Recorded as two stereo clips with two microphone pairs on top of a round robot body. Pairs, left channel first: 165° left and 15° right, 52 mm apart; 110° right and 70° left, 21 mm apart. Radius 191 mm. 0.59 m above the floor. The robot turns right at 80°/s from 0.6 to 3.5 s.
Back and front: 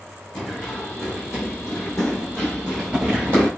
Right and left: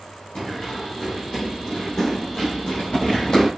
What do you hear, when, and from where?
0.3 s running footsteps: 120° right, 0.8 m; by 3.5 s 50° right, 1.2 m